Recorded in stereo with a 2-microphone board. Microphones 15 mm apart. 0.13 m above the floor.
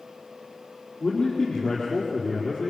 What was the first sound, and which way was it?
A man speaking, 55° left (ahead or behind).